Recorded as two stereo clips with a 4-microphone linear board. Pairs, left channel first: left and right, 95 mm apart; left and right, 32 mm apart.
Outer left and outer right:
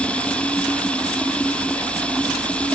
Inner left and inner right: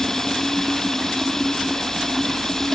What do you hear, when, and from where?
0.0 s running water: 10° left (ahead or behind)